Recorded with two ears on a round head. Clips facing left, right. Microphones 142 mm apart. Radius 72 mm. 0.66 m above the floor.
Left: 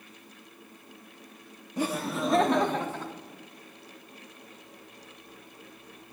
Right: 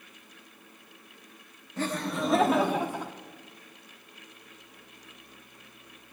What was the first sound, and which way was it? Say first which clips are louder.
Laughter: left 1 dB; 10° left (ahead or behind).